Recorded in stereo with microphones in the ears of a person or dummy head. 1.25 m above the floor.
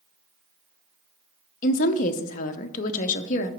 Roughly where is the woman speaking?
Left.